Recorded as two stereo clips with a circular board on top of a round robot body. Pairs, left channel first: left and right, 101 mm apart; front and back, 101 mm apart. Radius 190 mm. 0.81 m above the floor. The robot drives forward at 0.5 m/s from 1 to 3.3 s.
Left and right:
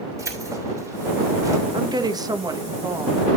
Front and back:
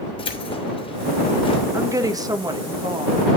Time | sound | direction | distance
0.2 | keys jangling | 30° right | 3 m
1.7 | a woman speaking | 125° right | 1.3 m